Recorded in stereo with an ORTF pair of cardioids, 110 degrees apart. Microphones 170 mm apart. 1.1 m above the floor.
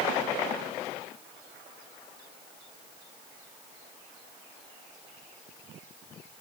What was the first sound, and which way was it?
Only background noise.